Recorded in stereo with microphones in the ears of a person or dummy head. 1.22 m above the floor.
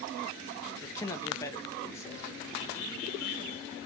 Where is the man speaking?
20° left (ahead or behind), 0.9 m.